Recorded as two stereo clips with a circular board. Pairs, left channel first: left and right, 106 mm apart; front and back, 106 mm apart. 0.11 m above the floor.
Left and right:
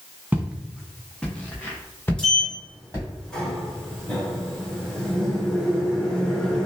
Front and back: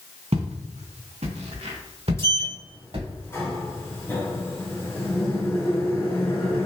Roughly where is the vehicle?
I don't hear a vehicle.